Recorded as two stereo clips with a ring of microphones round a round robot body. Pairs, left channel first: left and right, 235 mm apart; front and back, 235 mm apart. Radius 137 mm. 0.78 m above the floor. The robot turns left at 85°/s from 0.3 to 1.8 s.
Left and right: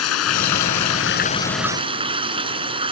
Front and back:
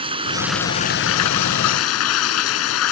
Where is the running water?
110° left; by 2.9 s 20° right.